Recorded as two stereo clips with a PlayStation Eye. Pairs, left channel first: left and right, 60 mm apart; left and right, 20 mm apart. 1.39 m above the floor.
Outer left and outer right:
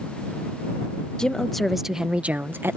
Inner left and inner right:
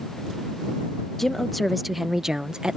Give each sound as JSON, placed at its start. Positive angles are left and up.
{"t": 1.2, "sound": "a woman speaking", "side_deg": 15}